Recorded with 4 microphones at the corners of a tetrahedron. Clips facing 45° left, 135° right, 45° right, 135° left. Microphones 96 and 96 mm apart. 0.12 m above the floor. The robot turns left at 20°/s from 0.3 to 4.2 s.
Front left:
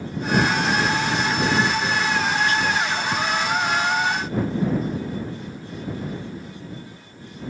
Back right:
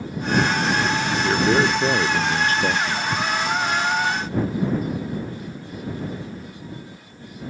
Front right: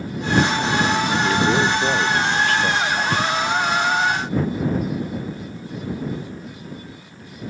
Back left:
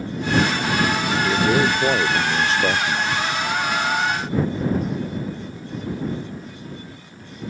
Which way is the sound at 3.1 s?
45° right.